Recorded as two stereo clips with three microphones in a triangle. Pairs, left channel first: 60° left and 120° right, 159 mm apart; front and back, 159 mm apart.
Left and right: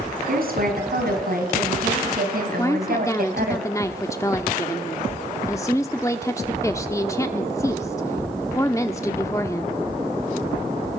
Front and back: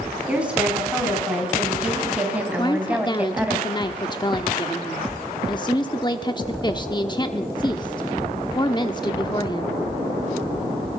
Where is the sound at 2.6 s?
15° left, 1.0 m.